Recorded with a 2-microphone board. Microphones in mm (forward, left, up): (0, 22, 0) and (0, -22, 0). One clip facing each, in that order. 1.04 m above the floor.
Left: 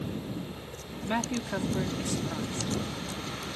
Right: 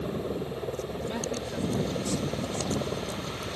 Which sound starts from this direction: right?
A helicopter, at 0.0 s.